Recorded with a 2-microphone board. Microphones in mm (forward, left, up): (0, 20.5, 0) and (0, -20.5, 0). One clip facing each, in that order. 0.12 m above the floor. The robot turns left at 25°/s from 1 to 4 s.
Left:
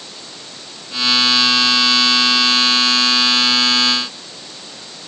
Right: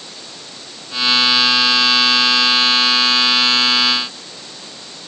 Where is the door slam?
I don't hear a door slam.